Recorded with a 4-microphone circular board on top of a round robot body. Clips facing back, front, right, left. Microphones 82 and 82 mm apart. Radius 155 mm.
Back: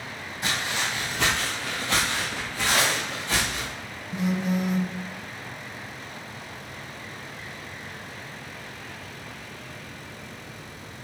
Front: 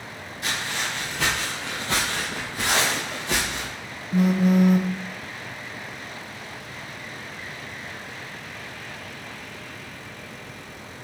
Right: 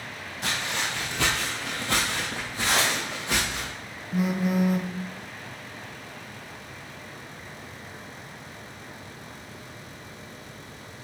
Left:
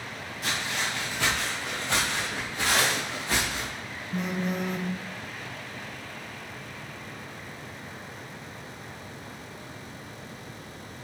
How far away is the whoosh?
About 1.1 m.